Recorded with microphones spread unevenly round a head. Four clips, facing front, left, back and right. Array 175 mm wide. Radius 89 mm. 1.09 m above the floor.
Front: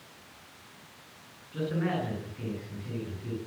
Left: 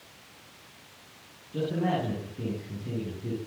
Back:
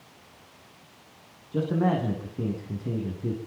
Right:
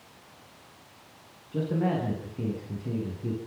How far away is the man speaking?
About 10 m.